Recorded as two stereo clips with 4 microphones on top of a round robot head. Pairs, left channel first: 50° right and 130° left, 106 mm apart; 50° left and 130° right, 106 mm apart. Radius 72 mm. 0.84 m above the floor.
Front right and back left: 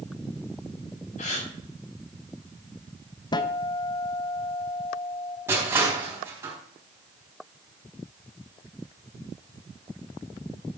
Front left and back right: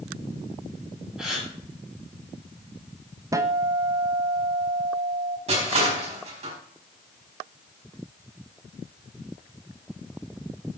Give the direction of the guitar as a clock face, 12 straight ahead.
3 o'clock.